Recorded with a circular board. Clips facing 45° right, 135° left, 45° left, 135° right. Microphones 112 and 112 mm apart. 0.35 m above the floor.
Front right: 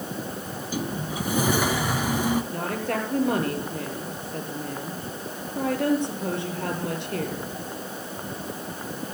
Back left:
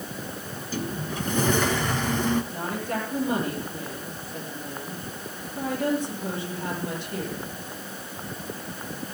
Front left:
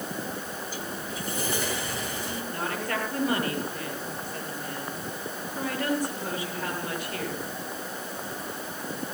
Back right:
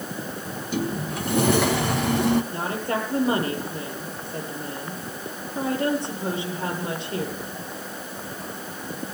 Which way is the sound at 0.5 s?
125° right.